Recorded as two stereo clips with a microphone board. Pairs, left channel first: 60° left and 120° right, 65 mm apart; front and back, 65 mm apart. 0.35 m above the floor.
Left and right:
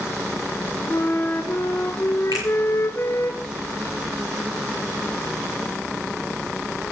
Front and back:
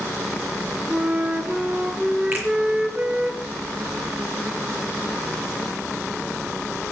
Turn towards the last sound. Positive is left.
turn(degrees=-120)